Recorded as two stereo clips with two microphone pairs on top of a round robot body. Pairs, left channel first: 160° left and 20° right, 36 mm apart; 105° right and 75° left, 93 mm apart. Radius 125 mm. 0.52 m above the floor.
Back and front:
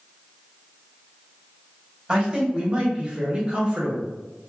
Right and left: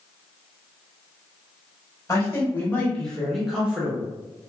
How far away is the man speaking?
About 1.6 m.